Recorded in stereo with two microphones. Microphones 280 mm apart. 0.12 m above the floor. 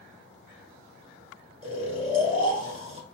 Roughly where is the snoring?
Right.